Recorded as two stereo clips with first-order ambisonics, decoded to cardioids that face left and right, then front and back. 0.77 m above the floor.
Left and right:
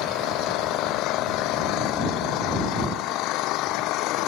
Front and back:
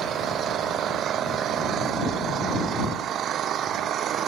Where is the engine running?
125° left.